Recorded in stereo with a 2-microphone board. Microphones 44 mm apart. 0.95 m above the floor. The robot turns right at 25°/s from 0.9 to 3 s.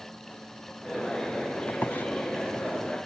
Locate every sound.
1.7 s a squeak: 50° left (ahead or behind); by 2.0 s 60° left (ahead or behind)